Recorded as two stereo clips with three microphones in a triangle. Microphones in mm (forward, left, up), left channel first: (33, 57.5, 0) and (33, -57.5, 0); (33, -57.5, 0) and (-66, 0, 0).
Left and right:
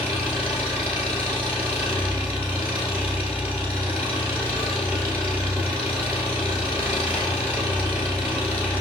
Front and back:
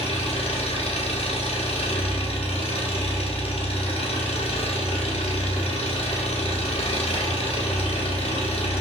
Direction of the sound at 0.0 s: 15° right.